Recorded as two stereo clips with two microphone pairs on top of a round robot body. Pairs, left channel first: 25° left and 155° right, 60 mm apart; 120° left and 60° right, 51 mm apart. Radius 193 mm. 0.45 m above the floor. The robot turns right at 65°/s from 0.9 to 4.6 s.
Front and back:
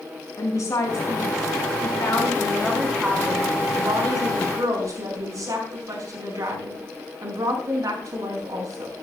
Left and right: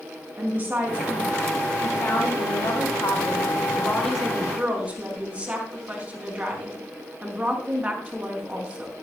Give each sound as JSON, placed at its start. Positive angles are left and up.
{"t": 0.4, "sound": "a woman speaking", "azimuth_deg": -10, "distance_m": 5.0}